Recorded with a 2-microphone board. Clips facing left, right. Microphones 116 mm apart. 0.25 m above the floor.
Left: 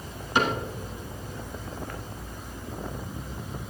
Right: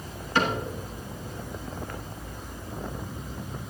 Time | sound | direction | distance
0.3 | a cupboard door | 15° left (ahead or behind) | 2.5 m